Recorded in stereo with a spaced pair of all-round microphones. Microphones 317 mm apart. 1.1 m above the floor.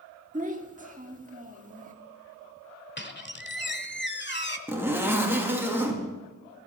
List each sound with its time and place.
0.3 s a child speaking: 25° right (ahead or behind), 1.9 m
3.0 s a squeak: 35° left (ahead or behind), 1.2 m
4.7 s a zipper: 5° right (ahead or behind), 2.5 m